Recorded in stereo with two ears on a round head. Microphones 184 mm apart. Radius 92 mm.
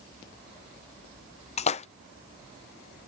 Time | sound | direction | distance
1.6 | a splash | 30° left (ahead or behind) | ?